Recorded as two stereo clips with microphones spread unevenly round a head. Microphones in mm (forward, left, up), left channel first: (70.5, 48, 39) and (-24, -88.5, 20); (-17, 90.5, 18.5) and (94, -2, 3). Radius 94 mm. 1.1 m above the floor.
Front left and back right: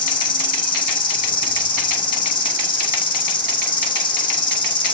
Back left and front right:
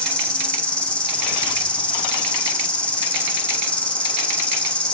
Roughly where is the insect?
Ahead left.